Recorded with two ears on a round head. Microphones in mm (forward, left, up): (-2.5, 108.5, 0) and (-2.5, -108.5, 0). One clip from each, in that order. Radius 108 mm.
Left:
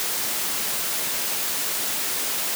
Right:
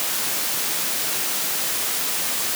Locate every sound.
Only background noise.